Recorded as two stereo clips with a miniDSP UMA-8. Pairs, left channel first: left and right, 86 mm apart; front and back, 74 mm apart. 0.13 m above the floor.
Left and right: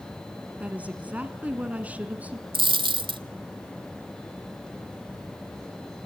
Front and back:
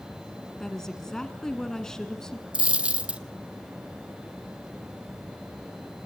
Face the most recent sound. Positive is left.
turn(degrees=-105)